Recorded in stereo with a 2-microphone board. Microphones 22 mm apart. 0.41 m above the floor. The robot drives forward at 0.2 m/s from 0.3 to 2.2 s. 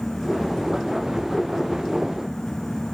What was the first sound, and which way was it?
Only background noise.